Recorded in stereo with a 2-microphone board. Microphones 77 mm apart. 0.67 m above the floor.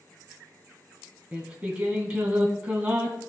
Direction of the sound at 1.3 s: 15° right (ahead or behind).